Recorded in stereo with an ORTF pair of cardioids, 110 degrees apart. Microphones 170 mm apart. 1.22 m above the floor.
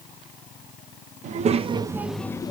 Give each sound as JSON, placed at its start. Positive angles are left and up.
{"t": 1.2, "sound": "a child speaking", "azimuth_deg": -50, "distance_m": 0.7}